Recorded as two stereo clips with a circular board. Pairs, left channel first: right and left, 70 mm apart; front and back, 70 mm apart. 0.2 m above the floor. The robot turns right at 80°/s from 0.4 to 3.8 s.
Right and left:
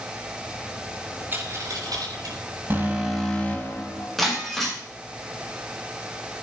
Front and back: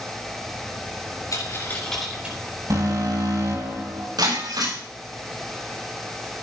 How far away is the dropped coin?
About 9 m.